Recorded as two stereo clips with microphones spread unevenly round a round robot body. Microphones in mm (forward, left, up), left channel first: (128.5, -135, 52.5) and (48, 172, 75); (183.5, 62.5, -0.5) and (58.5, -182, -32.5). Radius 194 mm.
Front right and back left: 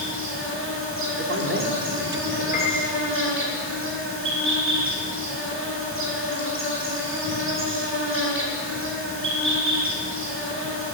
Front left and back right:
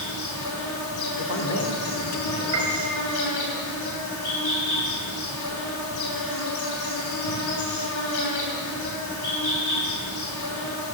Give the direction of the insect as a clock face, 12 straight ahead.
10 o'clock.